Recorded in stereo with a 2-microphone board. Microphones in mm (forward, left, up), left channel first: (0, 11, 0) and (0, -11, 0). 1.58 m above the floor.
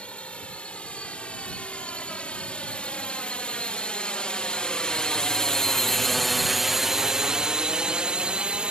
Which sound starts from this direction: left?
A drone, at 0.0 s.